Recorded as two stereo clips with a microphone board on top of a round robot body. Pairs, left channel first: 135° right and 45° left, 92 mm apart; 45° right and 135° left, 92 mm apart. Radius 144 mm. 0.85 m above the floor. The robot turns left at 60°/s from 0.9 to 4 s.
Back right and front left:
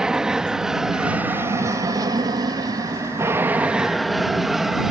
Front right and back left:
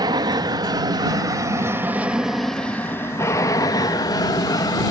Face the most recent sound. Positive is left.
turn(degrees=-40)